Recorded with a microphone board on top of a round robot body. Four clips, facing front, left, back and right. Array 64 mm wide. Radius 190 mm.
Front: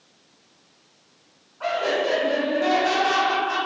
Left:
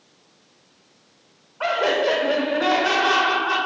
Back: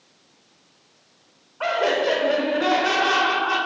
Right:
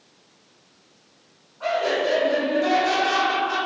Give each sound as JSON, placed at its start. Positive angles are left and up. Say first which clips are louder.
{"t": 1.6, "sound": "laughter", "louder": "left 2 dB, back 2 dB", "azimuth_deg": 130, "distance_m": 2.5}